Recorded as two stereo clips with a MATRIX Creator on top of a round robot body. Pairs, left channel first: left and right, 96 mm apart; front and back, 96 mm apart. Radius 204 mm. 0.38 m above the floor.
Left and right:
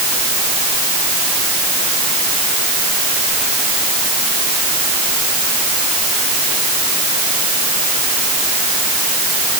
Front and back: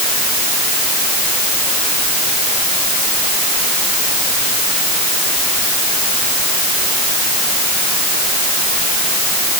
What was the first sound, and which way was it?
Only background noise.